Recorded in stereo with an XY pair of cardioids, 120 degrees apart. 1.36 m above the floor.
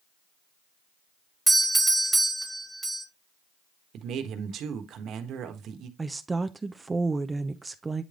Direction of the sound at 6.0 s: 20° right.